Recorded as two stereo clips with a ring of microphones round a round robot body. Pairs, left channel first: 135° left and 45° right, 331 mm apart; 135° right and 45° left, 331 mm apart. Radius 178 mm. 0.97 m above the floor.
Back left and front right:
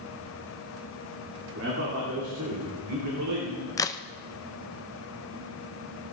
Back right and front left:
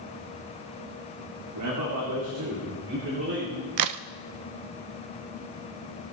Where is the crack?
55° left, 0.6 m.